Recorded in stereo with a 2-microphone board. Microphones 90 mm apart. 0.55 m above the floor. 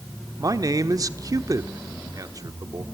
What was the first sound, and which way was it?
A man speaking, 40° right (ahead or behind).